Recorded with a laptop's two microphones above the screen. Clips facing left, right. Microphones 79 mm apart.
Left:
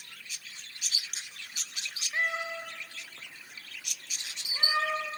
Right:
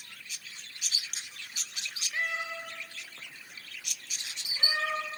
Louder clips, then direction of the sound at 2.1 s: Left 2 dB; 25° left (ahead or behind).